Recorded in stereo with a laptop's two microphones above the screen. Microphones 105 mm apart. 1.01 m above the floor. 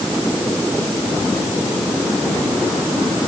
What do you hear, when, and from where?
Only background noise.